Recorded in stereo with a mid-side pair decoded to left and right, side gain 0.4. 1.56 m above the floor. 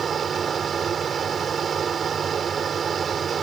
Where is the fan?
50° right.